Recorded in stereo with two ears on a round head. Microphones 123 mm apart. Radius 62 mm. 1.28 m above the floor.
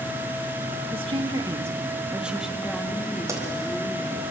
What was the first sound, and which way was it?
A woman speaking, 45° right (ahead or behind).